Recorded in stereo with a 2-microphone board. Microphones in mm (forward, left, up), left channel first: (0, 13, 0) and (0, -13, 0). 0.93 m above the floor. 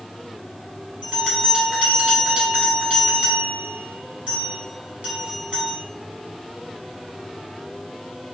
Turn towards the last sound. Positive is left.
turn(degrees=-55)  # may be behind; listen again after turning